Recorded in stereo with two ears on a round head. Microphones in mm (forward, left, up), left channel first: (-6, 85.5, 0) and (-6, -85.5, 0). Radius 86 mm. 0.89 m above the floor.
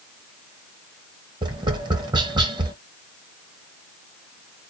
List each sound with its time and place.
1.4 s tapping: 25° right (ahead or behind), 0.9 m